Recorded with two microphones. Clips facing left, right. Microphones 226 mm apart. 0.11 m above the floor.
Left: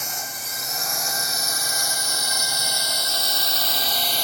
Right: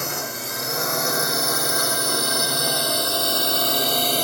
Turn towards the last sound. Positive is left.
turn(degrees=-60)  # may be behind; listen again after turning